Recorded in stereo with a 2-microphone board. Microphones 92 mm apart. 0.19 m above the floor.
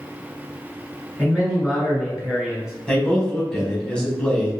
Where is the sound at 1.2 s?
10° right (ahead or behind), 1.3 m.